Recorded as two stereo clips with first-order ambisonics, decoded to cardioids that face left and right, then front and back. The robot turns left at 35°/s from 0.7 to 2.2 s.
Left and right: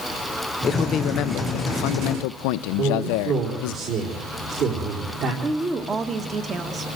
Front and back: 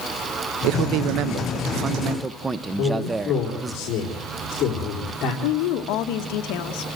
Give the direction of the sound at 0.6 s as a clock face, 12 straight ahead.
7 o'clock.